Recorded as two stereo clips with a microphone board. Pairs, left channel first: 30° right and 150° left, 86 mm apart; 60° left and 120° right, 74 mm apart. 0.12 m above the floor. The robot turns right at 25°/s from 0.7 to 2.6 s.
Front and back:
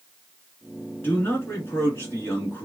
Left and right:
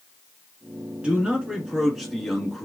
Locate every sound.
1.0 s a man speaking: 60° right, 1.3 m; by 2.7 s 20° right, 1.3 m